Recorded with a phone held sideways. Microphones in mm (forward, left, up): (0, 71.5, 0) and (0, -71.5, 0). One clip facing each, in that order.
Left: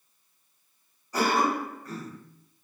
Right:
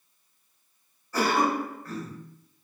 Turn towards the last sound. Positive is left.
turn(degrees=15)  # may be behind; listen again after turning